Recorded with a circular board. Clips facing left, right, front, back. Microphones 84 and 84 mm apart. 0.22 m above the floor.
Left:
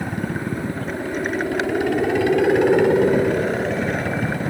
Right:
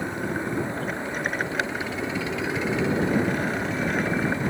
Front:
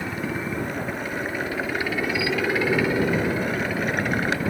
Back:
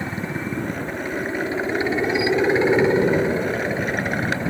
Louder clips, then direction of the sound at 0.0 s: Left 2 dB, back 1 dB; 115° left.